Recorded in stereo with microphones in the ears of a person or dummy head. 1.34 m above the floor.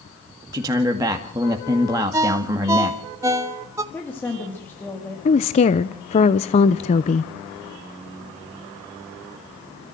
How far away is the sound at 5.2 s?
About 0.7 m.